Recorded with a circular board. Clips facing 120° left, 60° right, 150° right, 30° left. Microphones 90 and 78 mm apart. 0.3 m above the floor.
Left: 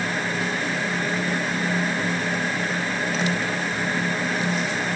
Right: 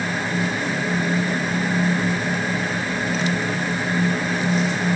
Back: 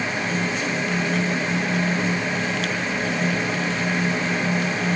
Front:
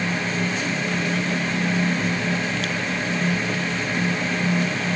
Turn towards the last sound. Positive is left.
No sound to turn to.